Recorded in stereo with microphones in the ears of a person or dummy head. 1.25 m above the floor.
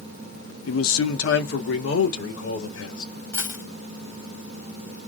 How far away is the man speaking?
About 0.8 m.